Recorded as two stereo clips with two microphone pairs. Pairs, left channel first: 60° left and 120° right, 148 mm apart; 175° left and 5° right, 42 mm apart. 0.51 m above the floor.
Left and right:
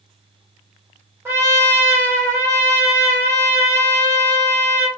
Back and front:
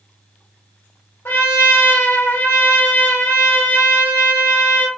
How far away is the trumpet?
About 1.3 m.